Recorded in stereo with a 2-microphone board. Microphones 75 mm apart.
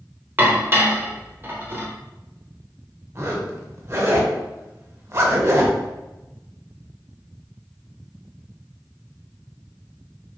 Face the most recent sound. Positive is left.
turn(degrees=-40)  # may be behind; listen again after turning